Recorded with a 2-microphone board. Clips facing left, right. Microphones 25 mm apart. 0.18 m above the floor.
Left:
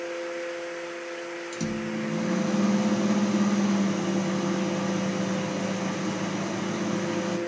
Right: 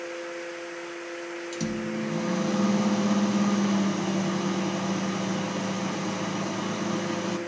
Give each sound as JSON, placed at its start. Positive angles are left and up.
{"t": 1.5, "sound": "a microwave", "side_deg": -10, "distance_m": 0.9}